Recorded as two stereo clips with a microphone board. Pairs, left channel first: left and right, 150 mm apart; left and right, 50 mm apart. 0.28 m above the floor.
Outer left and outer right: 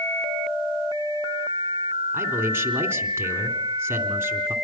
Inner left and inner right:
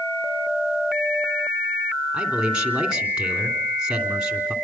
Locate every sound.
2.1 s a man speaking: 15° right (ahead or behind), 3 m